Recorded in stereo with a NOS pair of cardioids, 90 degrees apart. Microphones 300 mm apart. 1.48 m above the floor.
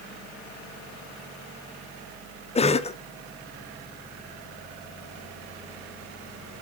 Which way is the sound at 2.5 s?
20° left.